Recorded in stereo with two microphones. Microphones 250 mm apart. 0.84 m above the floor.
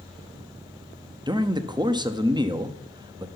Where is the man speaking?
15° right (ahead or behind), 0.8 m.